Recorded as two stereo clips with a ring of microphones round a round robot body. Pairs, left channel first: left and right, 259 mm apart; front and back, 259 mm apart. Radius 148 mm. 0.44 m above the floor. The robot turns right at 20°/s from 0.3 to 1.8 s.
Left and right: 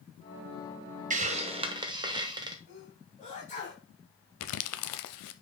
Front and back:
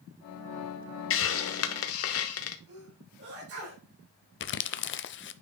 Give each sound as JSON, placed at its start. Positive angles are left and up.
{"t": 1.1, "sound": "a hiss", "azimuth_deg": -30, "distance_m": 0.9}
{"t": 2.7, "sound": "a sneeze", "azimuth_deg": 150, "distance_m": 3.5}
{"t": 4.4, "sound": "crumpling", "azimuth_deg": 50, "distance_m": 0.6}